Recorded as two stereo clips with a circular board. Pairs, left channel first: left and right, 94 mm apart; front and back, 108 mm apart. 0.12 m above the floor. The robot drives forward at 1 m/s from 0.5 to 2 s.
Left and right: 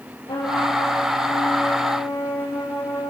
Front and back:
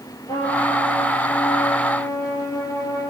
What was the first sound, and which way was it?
A trumpet, 50° left.